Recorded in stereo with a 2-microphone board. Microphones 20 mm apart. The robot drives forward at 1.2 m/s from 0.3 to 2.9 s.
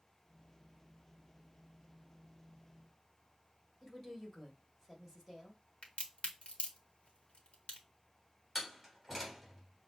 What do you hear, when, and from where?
3.8 s a woman speaking: 10° left (ahead or behind), 2 m
5.8 s a crack: 65° left (ahead or behind), 1.2 m
8.6 s a door slam: 5° left (ahead or behind), 3 m